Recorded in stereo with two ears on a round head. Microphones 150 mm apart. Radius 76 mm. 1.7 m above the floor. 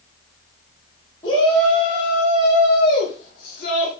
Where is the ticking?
No ticking in this recording.